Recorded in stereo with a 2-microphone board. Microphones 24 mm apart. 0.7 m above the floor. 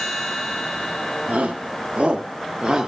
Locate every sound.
1.3 s a shout: 70° right (ahead or behind), 1.7 m; by 2.9 s 15° right (ahead or behind), 1.4 m